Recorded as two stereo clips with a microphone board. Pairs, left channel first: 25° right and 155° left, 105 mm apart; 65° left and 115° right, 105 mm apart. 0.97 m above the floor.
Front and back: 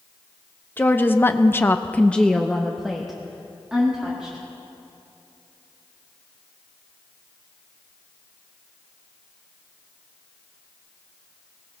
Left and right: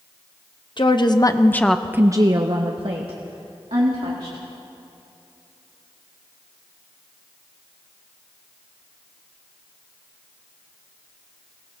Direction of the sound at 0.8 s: 45° left.